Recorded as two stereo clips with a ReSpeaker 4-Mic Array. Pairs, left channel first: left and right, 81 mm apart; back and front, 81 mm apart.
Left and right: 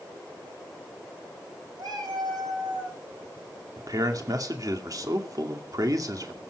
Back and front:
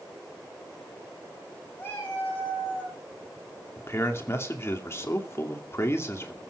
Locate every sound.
1.8 s a cat meowing: 120° right, 9.5 m
3.8 s a man speaking: 125° right, 2.5 m